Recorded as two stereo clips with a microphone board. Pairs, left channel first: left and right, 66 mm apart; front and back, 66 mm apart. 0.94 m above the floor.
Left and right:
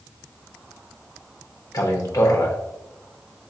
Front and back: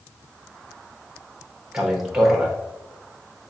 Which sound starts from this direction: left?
A man speaking, at 1.7 s.